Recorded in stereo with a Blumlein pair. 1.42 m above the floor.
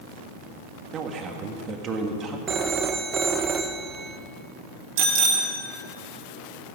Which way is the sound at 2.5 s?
25° right.